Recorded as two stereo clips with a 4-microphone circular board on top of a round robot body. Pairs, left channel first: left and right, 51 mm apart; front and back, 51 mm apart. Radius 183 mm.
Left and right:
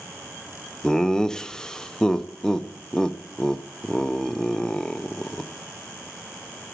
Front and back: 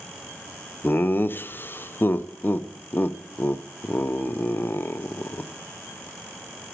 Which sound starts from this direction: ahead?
Laughter, at 0.8 s.